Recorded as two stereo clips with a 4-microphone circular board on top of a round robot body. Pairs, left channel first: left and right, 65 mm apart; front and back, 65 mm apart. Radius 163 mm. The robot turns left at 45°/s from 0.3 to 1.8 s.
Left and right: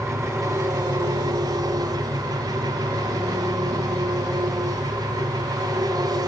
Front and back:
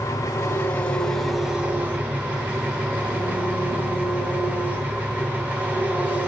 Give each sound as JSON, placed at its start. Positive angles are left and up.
{"t": 0.0, "sound": "an engine running", "azimuth_deg": -45, "distance_m": 2.0}